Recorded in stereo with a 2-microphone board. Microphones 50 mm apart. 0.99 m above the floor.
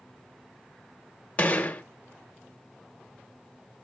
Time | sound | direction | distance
1.4 | a gunshot | 30° left (ahead or behind) | 0.8 m